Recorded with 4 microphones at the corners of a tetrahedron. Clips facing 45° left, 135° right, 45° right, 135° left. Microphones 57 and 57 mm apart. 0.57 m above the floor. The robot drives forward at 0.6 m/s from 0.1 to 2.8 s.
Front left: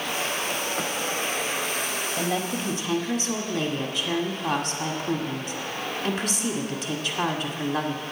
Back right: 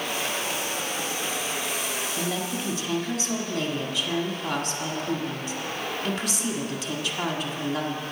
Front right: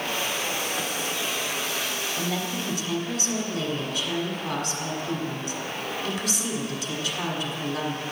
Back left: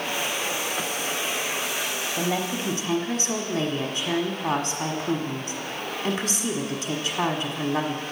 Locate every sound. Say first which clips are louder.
2.2 s a woman speaking: front left 4 dB, back left 5 dB; 110° left, 1.3 m; by 8.0 s 130° left, 1.5 m